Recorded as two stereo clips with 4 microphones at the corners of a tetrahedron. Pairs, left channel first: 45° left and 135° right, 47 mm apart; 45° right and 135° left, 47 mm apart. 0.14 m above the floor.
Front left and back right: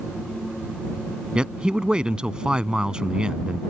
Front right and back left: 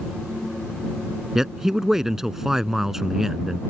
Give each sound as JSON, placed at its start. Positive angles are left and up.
{"t": 1.4, "sound": "a man speaking", "azimuth_deg": -160}